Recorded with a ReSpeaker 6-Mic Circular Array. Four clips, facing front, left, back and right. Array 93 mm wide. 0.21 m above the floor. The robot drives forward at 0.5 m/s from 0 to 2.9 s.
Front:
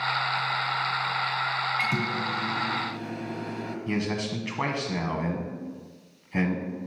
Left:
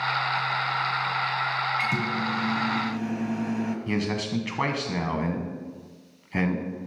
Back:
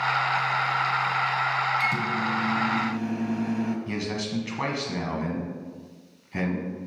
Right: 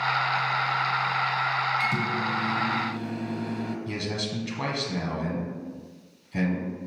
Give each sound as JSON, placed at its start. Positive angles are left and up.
{"t": 1.8, "sound": "a microwave", "azimuth_deg": 35, "distance_m": 1.0}
{"t": 3.9, "sound": "a man speaking", "azimuth_deg": 80, "distance_m": 1.4}